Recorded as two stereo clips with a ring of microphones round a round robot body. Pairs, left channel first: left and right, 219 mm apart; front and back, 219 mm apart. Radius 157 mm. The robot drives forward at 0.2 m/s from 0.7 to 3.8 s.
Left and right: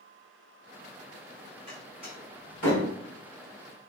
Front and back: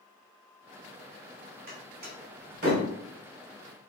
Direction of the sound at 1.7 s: 155° left.